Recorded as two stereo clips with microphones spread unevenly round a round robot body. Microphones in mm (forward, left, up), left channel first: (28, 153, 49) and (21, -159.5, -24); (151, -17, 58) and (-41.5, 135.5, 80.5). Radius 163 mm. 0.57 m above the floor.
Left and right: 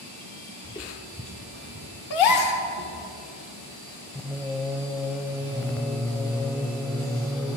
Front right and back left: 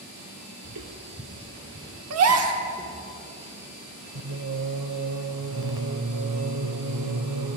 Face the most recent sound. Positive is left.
turn(degrees=170)